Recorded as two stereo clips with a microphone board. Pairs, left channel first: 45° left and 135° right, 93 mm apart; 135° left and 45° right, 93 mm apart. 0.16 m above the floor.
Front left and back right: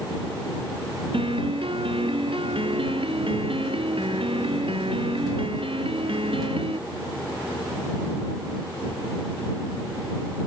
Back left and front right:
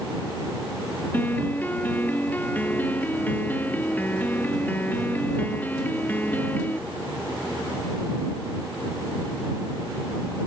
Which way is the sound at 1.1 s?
155° right.